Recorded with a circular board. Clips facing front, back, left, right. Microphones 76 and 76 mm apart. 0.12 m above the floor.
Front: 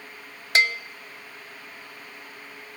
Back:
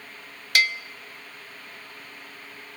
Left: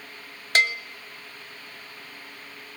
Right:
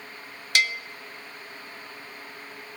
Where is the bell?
50° left, 0.5 m.